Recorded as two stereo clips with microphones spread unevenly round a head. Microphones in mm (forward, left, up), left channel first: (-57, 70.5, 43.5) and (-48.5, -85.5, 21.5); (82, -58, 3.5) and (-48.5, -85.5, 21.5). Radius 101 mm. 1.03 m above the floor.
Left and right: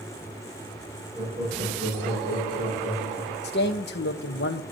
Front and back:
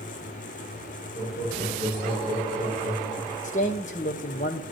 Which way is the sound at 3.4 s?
55° left.